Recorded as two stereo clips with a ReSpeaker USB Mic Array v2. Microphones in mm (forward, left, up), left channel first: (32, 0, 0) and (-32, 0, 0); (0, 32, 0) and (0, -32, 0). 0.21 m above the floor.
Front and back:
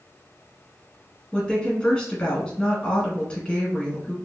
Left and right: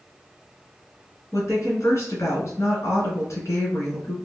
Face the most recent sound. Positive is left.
turn(degrees=75)